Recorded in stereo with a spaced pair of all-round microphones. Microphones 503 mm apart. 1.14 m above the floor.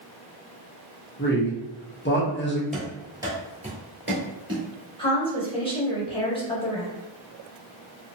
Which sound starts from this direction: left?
A man speaking, at 1.2 s.